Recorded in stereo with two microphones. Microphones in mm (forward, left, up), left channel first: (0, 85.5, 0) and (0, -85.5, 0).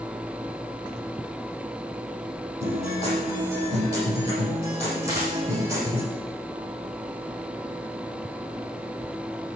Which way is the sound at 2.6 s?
15° right (ahead or behind).